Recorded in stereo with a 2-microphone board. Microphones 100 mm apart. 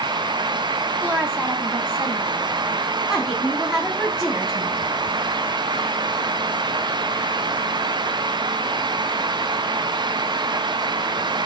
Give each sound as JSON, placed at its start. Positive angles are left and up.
{"t": 1.0, "sound": "a woman speaking", "side_deg": -20, "distance_m": 1.0}
{"t": 3.1, "sound": "a woman speaking", "side_deg": -10, "distance_m": 1.5}